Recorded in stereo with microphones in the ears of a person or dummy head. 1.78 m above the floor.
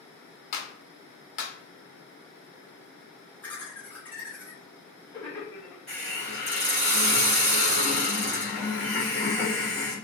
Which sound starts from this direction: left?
A clap, at 0.5 s.